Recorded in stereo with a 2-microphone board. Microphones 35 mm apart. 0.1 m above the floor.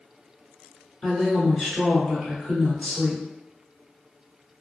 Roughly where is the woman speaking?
Centre.